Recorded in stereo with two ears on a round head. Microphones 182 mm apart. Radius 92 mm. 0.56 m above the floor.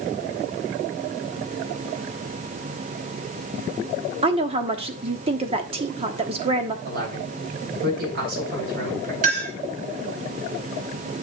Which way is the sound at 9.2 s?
45° right (ahead or behind).